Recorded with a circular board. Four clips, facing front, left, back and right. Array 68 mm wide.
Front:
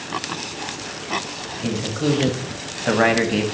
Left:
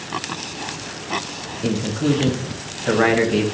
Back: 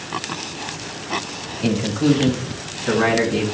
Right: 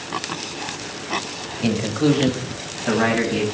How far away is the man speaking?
About 1.3 m.